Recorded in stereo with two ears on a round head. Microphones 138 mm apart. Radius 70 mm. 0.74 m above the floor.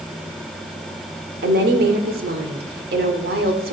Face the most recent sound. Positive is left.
turn(degrees=-70)  # may be behind; listen again after turning